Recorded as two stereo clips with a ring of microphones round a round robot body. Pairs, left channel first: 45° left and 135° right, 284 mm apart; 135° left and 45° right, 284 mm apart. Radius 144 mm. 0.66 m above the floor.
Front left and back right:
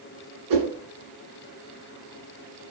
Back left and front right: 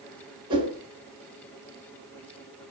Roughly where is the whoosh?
Behind right.